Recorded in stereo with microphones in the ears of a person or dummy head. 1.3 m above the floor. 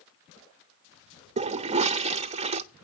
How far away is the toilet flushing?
About 0.5 m.